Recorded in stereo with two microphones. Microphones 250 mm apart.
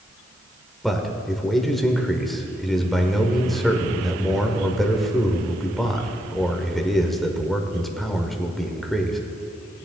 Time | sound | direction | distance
0.8 | a man speaking | centre (ahead or behind) | 1.1 m